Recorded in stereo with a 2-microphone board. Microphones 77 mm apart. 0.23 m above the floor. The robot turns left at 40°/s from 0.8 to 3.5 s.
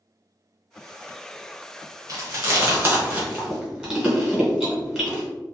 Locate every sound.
2.1 s chewing: 45° right (ahead or behind), 1.6 m; by 5.2 s 5° right (ahead or behind), 1.6 m